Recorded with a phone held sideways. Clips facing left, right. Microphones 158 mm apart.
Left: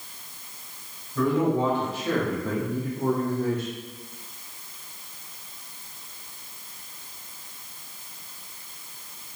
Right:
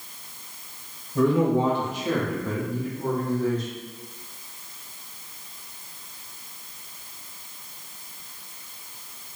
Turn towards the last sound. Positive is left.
turn(degrees=60)  # may be behind; listen again after turning